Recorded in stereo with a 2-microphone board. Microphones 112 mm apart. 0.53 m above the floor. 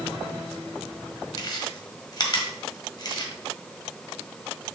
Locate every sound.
1.4 s chewing: 40° left (ahead or behind), 1.5 m